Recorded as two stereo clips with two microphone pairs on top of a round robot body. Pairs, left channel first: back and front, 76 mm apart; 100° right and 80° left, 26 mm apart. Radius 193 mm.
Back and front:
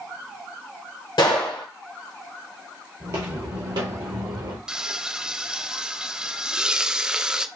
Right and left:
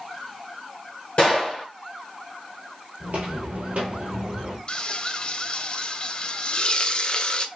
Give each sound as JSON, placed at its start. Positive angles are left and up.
{"t": 1.2, "sound": "a gunshot", "azimuth_deg": -155, "distance_m": 0.6}
{"t": 3.0, "sound": "footsteps", "azimuth_deg": 65, "distance_m": 1.1}
{"t": 4.7, "sound": "frying", "azimuth_deg": -75, "distance_m": 0.8}